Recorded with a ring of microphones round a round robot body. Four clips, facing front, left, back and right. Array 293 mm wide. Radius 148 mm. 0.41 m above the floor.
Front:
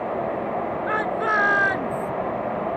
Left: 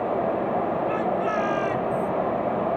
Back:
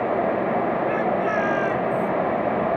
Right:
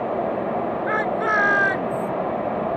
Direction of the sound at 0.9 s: 50° right.